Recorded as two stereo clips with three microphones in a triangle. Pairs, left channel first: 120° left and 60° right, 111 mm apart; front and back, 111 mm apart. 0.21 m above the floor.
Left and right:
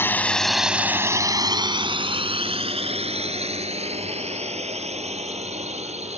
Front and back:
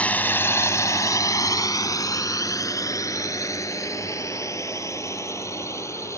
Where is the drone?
70° left; by 6.2 s 65° right.